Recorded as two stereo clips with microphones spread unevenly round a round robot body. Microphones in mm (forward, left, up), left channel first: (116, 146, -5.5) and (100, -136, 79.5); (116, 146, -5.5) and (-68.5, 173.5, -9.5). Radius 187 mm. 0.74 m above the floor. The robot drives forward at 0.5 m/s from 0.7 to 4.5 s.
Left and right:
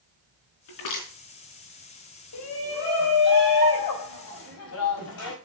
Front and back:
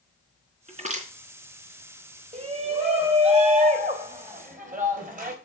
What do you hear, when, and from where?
0.7 s crushing: 120° left, 4 m
2.3 s a shout: 110° left, 3.5 m; by 5.3 s 130° left, 4 m